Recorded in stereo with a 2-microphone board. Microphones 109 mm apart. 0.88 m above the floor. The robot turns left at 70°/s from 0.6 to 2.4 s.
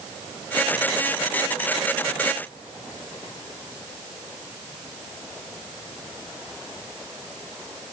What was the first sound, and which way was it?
Only background noise.